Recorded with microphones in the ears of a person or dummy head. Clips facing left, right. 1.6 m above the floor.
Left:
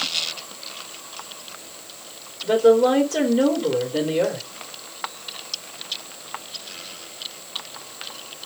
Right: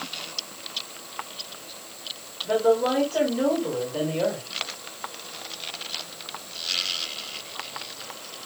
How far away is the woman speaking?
About 2.5 m.